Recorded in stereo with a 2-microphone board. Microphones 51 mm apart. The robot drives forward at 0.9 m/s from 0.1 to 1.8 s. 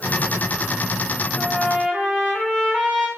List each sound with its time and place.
1.4 s a trumpet: 15° left (ahead or behind), 1.2 m